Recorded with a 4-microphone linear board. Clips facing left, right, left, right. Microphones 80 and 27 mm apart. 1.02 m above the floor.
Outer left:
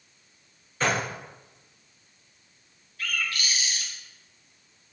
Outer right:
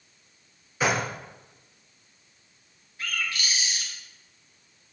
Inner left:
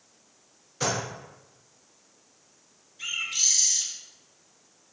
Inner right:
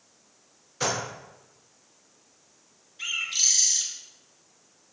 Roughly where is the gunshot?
Centre.